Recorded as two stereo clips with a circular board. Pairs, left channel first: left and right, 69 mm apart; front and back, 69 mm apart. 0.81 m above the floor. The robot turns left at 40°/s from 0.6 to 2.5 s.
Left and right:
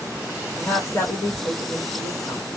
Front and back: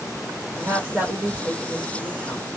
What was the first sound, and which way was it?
A woman speaking, 130° left.